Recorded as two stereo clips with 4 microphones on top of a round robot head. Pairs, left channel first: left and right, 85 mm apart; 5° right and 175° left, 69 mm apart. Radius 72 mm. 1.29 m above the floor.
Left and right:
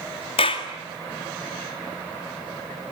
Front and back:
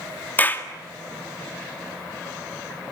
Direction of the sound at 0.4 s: 55° left.